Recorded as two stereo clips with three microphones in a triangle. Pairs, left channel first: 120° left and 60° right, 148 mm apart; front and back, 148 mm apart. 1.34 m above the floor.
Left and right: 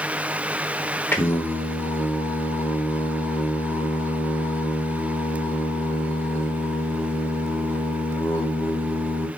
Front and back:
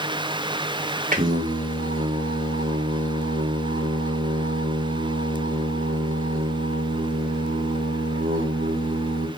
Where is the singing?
165° right, 1.0 m.